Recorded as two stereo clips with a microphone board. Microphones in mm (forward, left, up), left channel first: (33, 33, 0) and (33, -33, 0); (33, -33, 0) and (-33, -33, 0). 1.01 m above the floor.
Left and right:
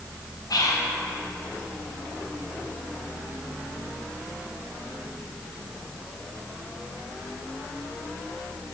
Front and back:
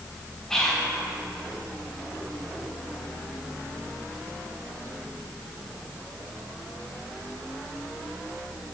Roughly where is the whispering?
Left.